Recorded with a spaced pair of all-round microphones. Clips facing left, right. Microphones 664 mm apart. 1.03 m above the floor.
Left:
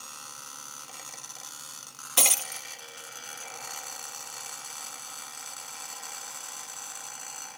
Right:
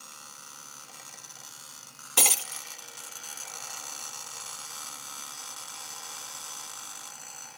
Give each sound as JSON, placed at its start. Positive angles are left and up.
{"t": 2.2, "sound": "breaking glass", "side_deg": 10}